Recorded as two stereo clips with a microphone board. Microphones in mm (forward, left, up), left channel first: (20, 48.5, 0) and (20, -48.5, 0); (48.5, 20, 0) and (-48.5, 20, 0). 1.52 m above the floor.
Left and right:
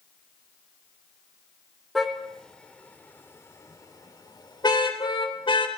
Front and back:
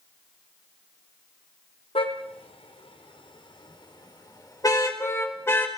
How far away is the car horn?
About 3.5 m.